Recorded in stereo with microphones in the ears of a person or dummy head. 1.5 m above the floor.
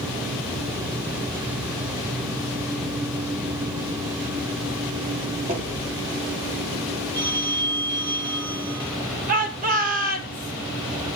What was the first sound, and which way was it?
Knocking, 45° right (ahead or behind).